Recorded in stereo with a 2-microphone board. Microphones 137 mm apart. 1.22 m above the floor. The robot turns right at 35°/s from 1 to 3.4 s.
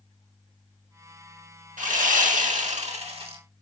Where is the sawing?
100° right, 1.8 m; by 3.4 s 40° right, 1.8 m.